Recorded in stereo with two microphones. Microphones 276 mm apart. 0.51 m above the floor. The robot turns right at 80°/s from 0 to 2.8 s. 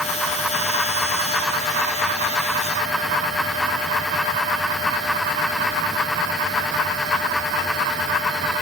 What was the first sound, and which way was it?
Only background noise.